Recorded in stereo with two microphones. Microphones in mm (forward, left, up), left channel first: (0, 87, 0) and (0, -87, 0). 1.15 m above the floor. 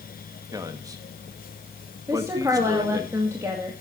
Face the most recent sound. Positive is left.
turn(degrees=-15)  # may be behind; listen again after turning